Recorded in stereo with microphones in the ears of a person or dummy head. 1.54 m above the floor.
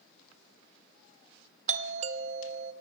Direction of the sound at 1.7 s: 35° right (ahead or behind).